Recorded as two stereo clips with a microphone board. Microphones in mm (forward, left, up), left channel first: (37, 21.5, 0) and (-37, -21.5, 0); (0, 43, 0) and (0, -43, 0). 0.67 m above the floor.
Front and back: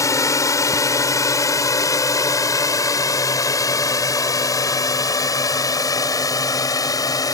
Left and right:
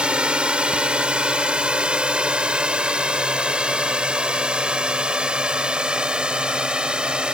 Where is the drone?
15° right; by 7.3 s 10° right.